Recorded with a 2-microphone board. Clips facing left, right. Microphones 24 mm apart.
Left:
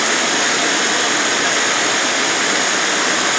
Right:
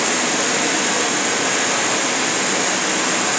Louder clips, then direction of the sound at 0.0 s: Left 3 dB; 50° left (ahead or behind).